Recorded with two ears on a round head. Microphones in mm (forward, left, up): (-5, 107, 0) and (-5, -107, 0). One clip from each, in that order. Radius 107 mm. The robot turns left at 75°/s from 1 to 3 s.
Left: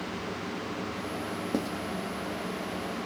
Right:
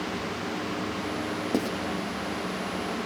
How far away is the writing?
About 1.9 m.